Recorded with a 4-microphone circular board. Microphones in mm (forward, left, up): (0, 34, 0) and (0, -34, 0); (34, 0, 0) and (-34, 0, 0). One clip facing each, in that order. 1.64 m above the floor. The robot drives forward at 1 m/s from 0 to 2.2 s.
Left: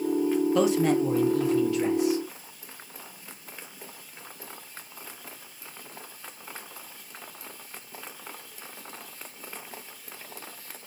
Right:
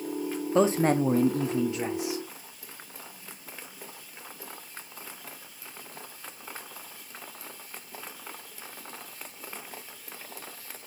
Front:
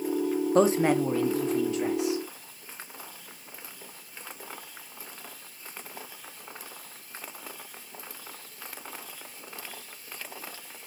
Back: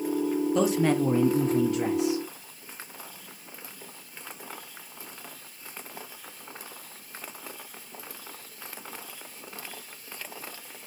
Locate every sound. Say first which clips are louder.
0.6 s a man speaking: right 3 dB, front 3 dB; 35° right, 0.7 m; by 2.2 s 165° right, 1.3 m